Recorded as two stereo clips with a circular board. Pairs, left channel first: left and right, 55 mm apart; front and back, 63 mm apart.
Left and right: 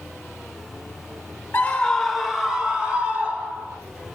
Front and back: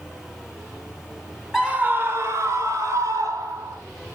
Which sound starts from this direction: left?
A scream, at 1.5 s.